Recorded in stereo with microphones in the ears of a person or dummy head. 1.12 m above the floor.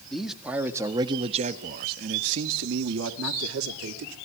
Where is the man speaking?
Centre (ahead or behind), 1.9 m; by 4.2 s 80° right, 3 m.